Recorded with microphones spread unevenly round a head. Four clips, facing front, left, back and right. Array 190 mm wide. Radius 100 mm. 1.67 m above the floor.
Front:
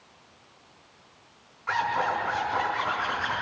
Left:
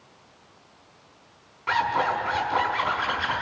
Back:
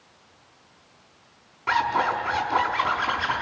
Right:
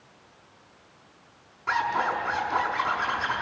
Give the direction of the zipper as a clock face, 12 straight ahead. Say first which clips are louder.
Left 2 dB, back 4 dB; 6 o'clock.